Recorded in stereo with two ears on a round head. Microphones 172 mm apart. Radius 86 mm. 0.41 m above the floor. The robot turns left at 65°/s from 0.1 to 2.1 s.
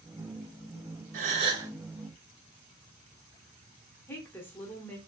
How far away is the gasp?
About 0.7 m.